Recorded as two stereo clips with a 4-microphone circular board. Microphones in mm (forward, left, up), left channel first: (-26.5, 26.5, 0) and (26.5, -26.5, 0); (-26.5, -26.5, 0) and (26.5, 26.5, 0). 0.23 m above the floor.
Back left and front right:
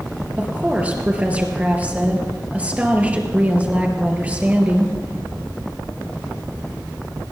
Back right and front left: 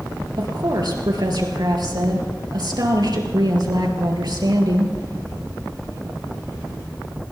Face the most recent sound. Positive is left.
turn(degrees=25)